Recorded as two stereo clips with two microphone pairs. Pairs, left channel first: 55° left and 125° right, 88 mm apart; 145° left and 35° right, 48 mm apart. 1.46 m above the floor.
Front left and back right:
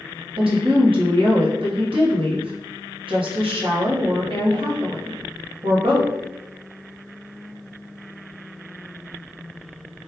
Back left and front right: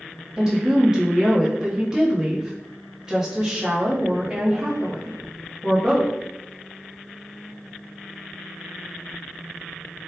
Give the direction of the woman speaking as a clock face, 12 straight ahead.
4 o'clock.